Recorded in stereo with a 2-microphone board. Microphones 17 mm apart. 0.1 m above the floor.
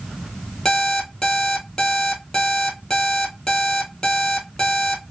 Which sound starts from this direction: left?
An alarm clock, at 0.7 s.